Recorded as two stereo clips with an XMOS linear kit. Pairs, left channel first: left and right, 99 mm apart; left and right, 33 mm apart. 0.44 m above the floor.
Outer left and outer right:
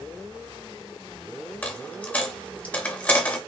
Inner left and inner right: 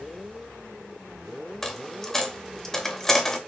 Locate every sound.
1.6 s a dropped coin: 15° left (ahead or behind), 0.6 m